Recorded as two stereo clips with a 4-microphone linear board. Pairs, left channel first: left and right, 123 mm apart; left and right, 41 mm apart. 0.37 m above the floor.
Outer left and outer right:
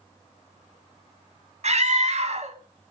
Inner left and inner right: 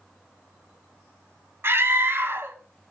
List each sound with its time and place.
1.6 s a scream: 65° right (ahead or behind), 2.5 m